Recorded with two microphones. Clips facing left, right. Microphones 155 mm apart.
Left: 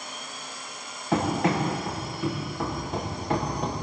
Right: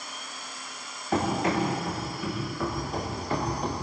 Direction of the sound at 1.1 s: 70° left (ahead or behind).